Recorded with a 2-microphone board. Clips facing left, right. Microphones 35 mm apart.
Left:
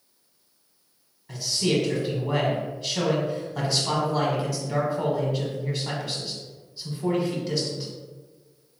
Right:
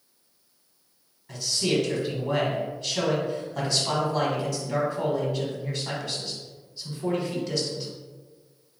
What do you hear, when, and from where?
1.3 s a man speaking: 5° left (ahead or behind), 1.1 m